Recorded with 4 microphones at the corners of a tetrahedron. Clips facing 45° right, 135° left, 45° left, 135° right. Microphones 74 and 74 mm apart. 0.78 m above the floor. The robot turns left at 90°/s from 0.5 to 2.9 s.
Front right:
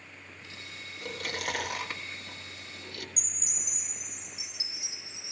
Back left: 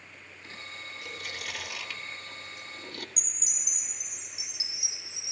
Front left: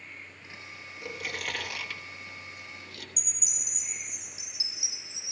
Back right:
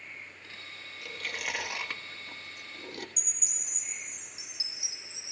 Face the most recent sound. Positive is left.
turn(degrees=-85)